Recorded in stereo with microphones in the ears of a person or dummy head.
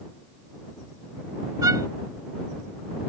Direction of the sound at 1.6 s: 20° right (ahead or behind).